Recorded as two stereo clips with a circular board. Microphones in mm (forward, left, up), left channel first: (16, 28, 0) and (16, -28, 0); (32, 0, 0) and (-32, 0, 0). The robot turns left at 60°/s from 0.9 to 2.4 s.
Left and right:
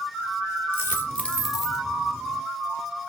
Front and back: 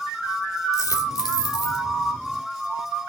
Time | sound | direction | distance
0.7 | a dropped coin | 35° left | 2.0 m